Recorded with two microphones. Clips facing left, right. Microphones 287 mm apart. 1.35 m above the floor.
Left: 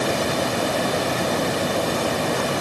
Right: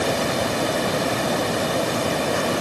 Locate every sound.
Only background noise.